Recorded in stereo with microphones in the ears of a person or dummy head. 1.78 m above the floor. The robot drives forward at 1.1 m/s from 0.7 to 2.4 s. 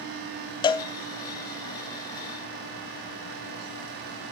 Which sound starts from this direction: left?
A cowbell, at 0.6 s.